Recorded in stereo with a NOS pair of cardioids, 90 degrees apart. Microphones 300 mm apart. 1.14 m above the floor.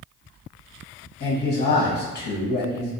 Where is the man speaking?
45° left, 0.9 m.